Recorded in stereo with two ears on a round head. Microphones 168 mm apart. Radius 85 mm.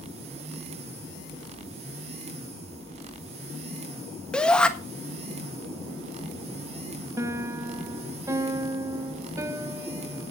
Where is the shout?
5° left (ahead or behind), 1.5 m.